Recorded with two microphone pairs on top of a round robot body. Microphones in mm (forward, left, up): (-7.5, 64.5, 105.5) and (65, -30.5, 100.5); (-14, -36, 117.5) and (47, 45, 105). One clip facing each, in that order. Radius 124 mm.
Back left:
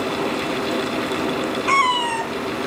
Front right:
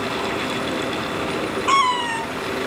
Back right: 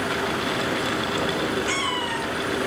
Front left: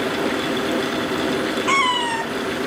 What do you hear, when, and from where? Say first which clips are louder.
1.7 s a cat meowing: front right 1 dB, front left 7 dB; 20° left, 0.9 m; by 2.7 s 100° left, 1.4 m